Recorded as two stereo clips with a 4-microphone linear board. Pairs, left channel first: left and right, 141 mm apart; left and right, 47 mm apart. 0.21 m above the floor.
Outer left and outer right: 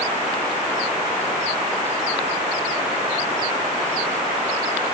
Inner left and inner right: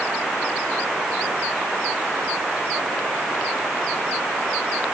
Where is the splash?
No splash in this recording.